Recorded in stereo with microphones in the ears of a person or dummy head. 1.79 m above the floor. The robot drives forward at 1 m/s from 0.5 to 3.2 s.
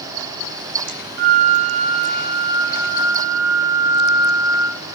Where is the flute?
60° right (ahead or behind), 1.0 m; by 4.8 s 20° right (ahead or behind), 2.5 m.